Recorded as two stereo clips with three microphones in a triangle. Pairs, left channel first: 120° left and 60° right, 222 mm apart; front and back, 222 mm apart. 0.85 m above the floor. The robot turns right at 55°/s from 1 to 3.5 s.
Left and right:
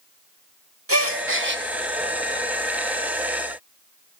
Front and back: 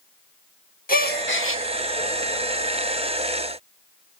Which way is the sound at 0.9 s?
50° right.